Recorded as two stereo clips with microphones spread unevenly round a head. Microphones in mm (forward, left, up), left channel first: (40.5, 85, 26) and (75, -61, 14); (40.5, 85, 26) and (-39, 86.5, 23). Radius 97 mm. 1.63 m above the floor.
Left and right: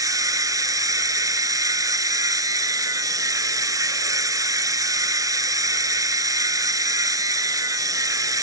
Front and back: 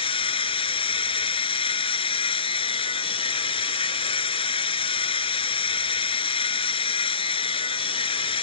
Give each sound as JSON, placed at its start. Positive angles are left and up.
{"t": 0.0, "sound": "a machine running", "azimuth_deg": -10}